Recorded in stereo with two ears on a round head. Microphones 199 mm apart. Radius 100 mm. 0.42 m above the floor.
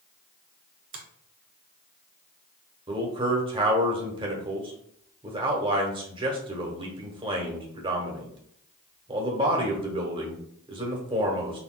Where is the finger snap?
40° right (ahead or behind), 1.4 m.